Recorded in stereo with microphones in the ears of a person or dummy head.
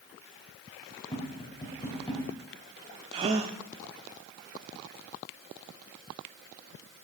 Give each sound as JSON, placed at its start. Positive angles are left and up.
{"t": 1.1, "sound": "tapping", "side_deg": 25, "distance_m": 3.5}
{"t": 3.1, "sound": "a gasp", "side_deg": -20, "distance_m": 1.0}